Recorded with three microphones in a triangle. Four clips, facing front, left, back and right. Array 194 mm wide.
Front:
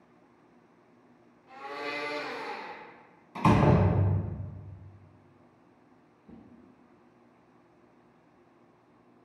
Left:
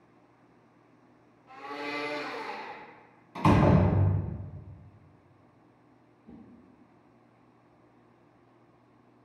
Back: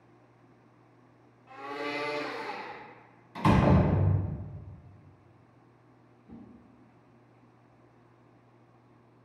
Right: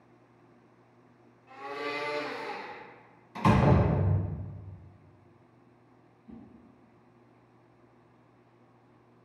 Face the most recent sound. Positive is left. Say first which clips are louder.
# right 1 dB, back 2 dB
turn(degrees=55)